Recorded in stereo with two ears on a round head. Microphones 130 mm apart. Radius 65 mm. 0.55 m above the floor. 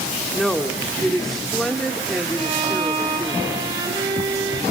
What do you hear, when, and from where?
0.3 s a woman speaking: 5° left (ahead or behind), 1.1 m
2.4 s a violin: 25° right (ahead or behind), 3 m